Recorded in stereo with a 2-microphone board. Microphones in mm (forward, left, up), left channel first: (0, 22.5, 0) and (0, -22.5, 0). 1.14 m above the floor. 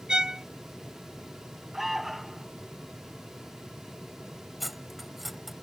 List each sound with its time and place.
0.1 s a violin: 15° right (ahead or behind)
1.7 s an alarm: 5° right (ahead or behind)
4.6 s cutlery clinking: centre (ahead or behind)